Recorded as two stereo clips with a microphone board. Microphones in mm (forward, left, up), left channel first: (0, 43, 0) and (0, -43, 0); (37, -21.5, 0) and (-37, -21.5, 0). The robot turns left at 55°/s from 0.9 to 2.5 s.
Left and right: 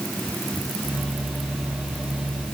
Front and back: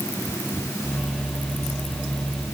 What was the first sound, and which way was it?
Only background noise.